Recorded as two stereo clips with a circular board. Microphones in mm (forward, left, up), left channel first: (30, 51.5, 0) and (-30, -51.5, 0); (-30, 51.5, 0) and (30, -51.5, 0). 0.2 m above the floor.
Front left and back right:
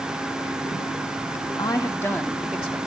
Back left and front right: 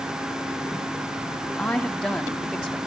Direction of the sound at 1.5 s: 45° left.